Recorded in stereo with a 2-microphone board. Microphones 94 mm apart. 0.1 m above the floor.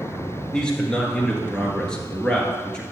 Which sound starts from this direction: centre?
A man speaking, at 0.5 s.